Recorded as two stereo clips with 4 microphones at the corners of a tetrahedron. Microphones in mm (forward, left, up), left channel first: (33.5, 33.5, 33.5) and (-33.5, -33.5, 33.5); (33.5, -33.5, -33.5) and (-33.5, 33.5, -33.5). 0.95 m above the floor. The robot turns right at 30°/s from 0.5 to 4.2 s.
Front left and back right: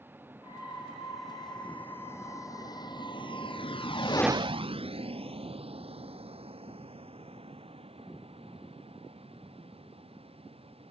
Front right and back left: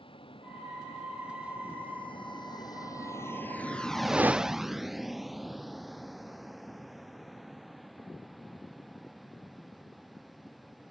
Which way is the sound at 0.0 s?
65° right.